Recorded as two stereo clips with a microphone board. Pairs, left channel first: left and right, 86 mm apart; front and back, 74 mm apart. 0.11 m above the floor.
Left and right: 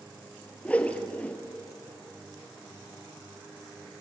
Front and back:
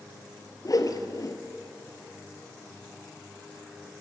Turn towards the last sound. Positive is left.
turn(degrees=20)